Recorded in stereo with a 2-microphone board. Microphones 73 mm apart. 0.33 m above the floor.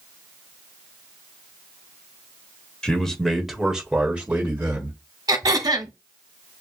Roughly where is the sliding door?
I don't hear a sliding door.